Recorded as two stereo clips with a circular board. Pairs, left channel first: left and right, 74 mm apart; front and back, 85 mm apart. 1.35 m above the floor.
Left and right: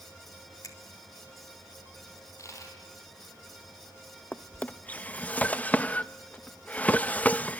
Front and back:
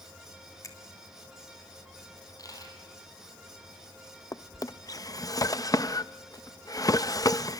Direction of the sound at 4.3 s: 25° left.